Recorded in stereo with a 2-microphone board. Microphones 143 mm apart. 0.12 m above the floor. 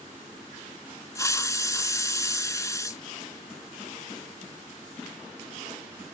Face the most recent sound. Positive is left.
turn(degrees=20)  # may be behind; listen again after turning